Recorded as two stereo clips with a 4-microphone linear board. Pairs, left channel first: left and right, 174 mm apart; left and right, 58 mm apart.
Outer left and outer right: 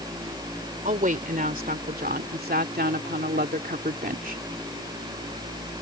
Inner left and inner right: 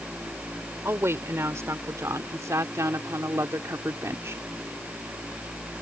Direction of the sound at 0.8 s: 50° right (ahead or behind).